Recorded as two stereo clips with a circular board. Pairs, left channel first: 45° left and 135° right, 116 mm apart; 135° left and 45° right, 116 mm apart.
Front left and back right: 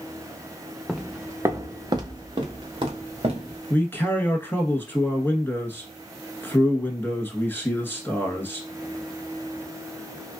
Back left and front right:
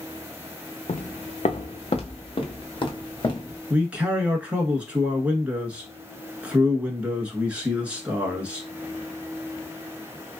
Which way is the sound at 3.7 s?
15° left.